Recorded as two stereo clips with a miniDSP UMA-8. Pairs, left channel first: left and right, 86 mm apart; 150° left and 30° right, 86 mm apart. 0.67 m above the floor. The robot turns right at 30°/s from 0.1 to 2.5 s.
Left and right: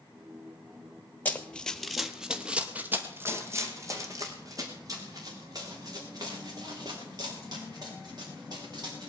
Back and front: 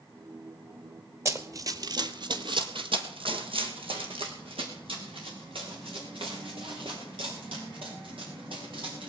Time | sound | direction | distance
1.2 | running footsteps | 20° left | 1.1 m